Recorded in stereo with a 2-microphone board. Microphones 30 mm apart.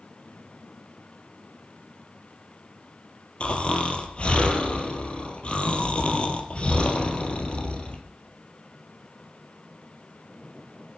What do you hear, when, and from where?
3.4 s snoring: 40° left (ahead or behind), 2.5 m